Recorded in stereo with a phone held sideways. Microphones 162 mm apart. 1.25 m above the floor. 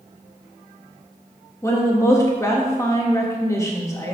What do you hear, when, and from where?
1.6 s a woman speaking: 20° left (ahead or behind), 1.4 m